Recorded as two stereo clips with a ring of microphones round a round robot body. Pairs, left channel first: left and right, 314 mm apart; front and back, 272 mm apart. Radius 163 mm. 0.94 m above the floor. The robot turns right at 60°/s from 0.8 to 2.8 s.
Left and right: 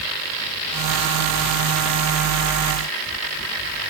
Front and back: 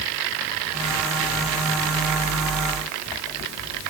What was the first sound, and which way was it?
Only background noise.